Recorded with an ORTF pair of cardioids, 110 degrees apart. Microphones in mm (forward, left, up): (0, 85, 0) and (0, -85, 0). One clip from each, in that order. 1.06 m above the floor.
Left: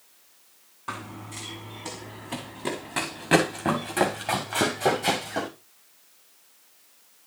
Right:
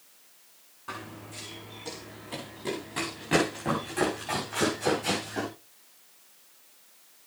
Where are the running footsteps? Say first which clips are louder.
Left 4 dB; 45° left, 4.5 m; by 5.5 s 60° left, 7 m.